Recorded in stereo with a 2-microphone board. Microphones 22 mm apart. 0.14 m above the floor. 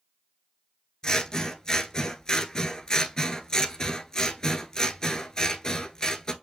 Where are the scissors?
35° left (ahead or behind), 0.5 m.